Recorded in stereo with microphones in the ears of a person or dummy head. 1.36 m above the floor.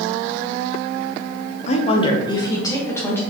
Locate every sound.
1.7 s a woman speaking: 45° left (ahead or behind), 0.6 m; by 3.2 s 15° left (ahead or behind), 1.4 m